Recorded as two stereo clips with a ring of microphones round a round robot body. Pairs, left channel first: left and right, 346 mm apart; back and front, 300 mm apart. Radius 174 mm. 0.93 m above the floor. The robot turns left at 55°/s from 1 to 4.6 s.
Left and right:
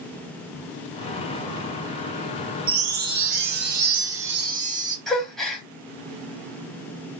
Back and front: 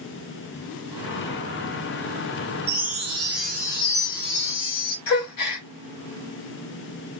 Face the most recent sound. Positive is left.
turn(degrees=180)